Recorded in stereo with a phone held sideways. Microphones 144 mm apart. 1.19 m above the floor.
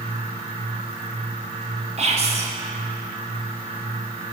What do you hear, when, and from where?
0.0 s a fan: 40° right (ahead or behind), 1.0 m
2.0 s whispering: 45° right (ahead or behind), 0.5 m